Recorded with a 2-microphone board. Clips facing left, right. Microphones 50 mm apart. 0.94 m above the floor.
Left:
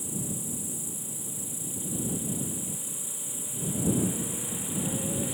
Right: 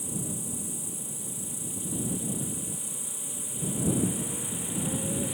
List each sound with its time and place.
0.0 s an insect: 60° right (ahead or behind)